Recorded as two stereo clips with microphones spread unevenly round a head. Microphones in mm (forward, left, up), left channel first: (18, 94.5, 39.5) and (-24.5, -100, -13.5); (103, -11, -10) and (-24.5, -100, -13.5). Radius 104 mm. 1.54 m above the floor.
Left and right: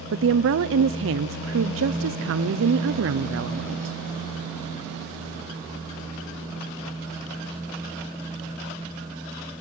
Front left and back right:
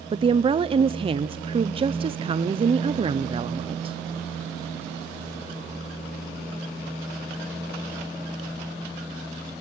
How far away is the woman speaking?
About 0.7 m.